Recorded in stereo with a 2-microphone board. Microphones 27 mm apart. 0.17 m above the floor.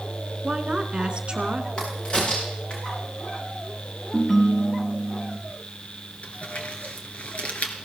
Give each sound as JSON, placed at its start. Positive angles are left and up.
{"t": 0.4, "sound": "a woman speaking", "side_deg": -40, "distance_m": 1.7}
{"t": 1.8, "sound": "a crack", "side_deg": 40, "distance_m": 8.0}
{"t": 4.1, "sound": "a ringtone", "side_deg": 15, "distance_m": 1.8}
{"t": 6.2, "sound": "crumpling", "side_deg": 55, "distance_m": 2.5}